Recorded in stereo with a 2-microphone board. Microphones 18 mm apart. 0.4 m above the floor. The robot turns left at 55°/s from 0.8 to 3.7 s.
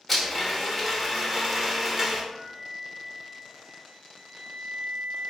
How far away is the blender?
About 0.7 m.